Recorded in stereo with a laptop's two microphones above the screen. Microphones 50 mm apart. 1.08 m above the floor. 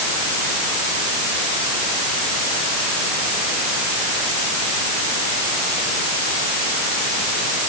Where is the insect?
I don't hear an insect.